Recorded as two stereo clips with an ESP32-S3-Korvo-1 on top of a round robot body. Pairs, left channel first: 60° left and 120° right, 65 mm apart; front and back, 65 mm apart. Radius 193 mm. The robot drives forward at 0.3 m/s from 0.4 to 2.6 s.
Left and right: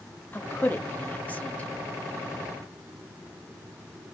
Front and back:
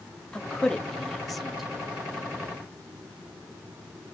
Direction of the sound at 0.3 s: 65° left.